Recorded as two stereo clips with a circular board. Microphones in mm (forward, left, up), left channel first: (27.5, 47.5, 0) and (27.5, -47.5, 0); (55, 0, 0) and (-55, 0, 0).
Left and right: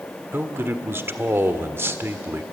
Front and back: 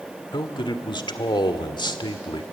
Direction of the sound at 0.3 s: 30° right.